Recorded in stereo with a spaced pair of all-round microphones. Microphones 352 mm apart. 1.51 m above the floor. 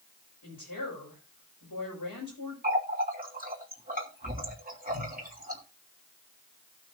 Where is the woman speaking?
85° left, 5 m.